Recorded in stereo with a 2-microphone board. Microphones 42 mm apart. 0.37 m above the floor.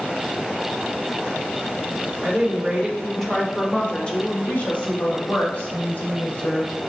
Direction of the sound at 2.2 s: 25° right (ahead or behind).